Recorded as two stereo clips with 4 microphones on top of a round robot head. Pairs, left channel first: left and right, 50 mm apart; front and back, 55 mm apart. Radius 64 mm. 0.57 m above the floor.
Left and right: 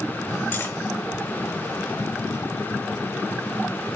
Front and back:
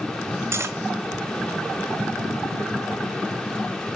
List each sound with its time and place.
0.5 s cutlery clinking: 145° left, 1.8 m